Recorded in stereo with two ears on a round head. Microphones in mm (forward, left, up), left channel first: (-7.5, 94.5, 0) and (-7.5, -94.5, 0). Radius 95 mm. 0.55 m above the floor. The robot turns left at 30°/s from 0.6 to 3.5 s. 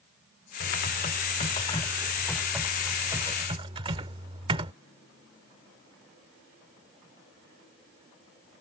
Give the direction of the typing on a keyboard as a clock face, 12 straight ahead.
10 o'clock.